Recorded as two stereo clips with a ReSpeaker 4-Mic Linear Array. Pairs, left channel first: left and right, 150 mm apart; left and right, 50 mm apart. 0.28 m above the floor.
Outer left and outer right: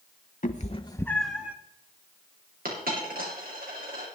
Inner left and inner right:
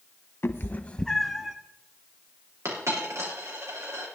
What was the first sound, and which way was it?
A cat meowing, 60° left (ahead or behind).